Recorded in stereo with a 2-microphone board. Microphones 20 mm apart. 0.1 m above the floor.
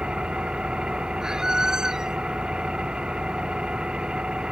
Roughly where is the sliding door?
I don't hear a sliding door.